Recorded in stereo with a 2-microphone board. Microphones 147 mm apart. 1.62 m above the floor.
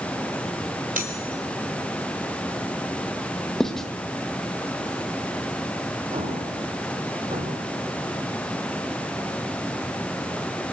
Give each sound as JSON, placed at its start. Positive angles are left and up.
{"t": 0.9, "sound": "cutlery clinking", "side_deg": -75, "distance_m": 4.0}
{"t": 3.6, "sound": "writing", "side_deg": 5, "distance_m": 1.8}
{"t": 6.1, "sound": "an explosion", "side_deg": -50, "distance_m": 6.0}